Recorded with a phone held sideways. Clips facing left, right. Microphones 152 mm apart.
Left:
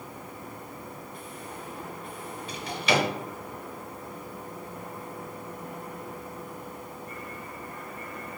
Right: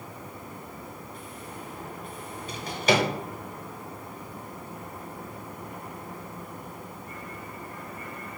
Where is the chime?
No chime in this recording.